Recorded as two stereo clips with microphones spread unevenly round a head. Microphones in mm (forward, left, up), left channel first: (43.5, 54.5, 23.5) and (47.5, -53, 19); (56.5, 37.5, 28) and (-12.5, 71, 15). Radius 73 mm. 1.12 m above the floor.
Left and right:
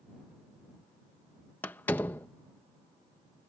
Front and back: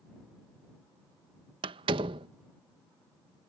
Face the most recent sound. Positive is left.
turn(degrees=170)